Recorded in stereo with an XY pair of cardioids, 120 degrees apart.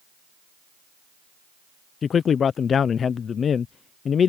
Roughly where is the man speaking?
Ahead left.